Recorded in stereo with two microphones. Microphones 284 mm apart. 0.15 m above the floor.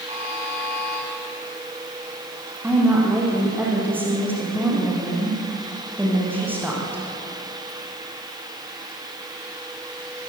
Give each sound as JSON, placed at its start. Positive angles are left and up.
{"t": 0.1, "sound": "a buzzer", "side_deg": -20, "distance_m": 5.5}
{"t": 2.6, "sound": "a woman speaking", "side_deg": -5, "distance_m": 6.5}